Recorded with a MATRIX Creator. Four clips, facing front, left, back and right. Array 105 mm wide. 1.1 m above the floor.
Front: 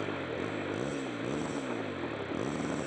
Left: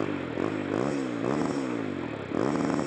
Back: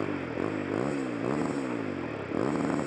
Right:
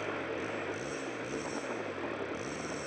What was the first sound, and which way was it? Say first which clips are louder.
A motorcycle: left 7 dB, back 4 dB; 115° left.